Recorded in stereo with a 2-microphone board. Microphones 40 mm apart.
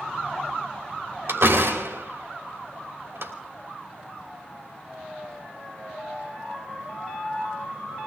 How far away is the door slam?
About 3 m.